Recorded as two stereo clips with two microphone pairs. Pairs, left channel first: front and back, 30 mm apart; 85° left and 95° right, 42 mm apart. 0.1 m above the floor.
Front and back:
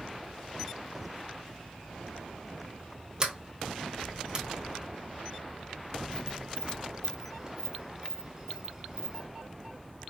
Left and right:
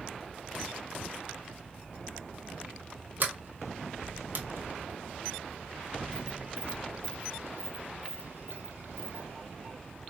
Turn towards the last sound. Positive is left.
turn(degrees=-120)